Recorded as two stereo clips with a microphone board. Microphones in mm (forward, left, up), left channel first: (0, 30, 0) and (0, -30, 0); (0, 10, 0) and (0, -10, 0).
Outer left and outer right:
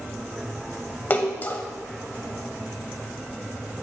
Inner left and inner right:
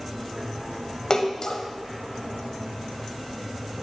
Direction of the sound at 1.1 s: 30° left (ahead or behind).